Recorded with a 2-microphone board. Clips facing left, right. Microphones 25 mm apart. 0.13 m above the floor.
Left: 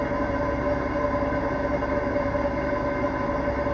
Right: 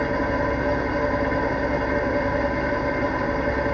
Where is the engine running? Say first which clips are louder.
Right 2 dB; 60° right (ahead or behind), 0.7 m.